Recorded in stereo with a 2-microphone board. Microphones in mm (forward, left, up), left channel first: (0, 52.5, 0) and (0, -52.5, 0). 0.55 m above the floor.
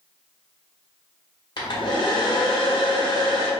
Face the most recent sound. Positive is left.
turn(degrees=50)  # may be behind; listen again after turning